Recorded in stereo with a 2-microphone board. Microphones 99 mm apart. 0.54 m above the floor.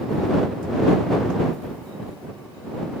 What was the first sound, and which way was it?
Only background noise.